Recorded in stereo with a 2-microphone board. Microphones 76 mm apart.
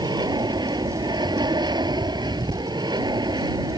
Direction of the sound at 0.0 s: 70° right (ahead or behind).